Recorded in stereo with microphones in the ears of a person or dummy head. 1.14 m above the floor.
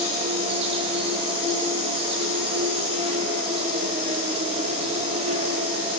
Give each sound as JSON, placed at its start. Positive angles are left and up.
{"t": 0.0, "sound": "an insect", "side_deg": -35, "distance_m": 1.1}